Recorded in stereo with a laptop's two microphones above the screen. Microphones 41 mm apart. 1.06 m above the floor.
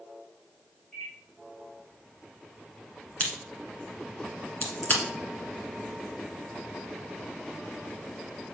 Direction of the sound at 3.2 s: 40° left (ahead or behind).